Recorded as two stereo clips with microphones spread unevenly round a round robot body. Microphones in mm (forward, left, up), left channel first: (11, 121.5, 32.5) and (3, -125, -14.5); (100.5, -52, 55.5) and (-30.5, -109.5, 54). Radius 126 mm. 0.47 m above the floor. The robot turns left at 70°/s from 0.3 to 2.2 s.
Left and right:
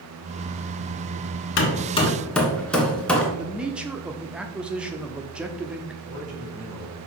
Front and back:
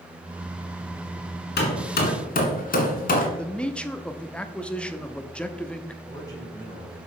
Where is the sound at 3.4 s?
50° right, 0.7 m.